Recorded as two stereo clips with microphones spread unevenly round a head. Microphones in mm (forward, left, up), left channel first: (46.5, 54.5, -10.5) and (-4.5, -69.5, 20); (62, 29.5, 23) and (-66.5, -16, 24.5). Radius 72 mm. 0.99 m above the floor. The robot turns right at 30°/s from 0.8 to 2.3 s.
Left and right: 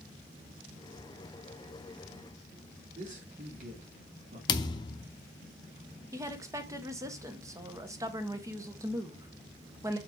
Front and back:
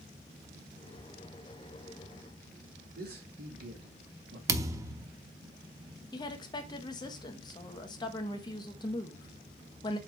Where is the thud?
135° left, 0.7 m.